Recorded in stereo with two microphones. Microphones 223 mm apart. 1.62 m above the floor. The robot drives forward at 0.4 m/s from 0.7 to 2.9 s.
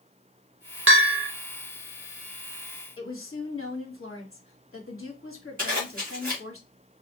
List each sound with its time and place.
0.9 s a bell: 65° right (ahead or behind), 0.5 m; by 1.3 s 80° right, 0.5 m
3.0 s a woman speaking: 70° left (ahead or behind), 1.1 m
5.6 s a zipper: 40° right (ahead or behind), 1.8 m